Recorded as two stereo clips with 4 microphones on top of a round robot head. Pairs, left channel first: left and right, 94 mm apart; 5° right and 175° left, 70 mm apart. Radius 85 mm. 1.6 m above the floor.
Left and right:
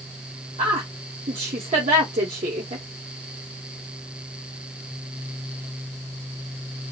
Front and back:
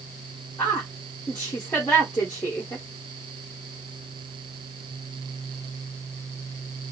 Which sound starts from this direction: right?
A woman speaking, at 0.6 s.